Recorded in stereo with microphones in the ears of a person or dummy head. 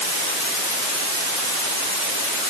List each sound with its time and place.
Only background noise.